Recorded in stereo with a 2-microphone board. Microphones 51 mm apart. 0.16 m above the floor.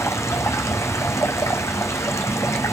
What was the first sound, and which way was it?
Running water, 80° left.